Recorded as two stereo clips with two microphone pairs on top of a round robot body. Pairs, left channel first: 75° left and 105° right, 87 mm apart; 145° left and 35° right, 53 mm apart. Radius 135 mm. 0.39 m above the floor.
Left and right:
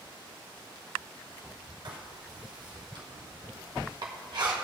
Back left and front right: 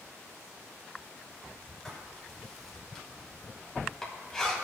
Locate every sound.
1.9 s writing: 135° right, 2 m